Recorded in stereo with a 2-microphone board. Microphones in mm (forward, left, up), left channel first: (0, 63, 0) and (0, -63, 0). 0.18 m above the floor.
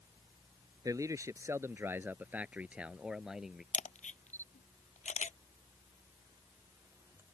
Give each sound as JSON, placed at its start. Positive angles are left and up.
{"t": 0.8, "sound": "a man speaking", "side_deg": -25}
{"t": 3.7, "sound": "a camera shutter", "side_deg": 85}